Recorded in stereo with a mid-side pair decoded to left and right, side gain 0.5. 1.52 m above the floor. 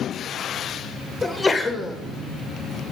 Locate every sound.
1.2 s a sneeze: 20° left, 0.6 m